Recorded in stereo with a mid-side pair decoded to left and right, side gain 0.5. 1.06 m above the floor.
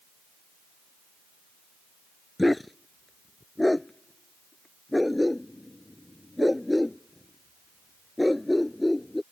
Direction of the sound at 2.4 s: 10° left.